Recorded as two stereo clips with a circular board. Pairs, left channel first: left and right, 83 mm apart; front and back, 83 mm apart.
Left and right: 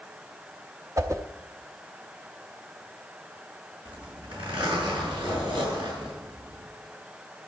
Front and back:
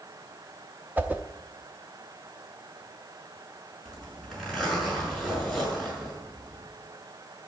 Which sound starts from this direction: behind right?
A whoosh, at 1.0 s.